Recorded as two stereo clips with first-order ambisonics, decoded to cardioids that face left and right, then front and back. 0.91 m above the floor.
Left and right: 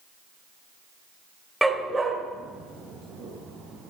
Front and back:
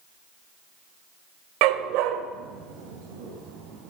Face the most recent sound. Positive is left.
turn(degrees=-150)